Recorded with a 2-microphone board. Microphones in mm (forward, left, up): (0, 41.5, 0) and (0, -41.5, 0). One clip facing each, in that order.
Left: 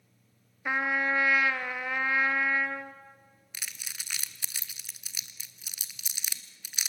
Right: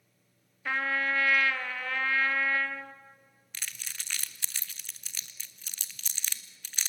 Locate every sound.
0.7 s a trumpet: 15° left (ahead or behind), 1.0 m
3.5 s crumpling: 10° left (ahead or behind), 1.0 m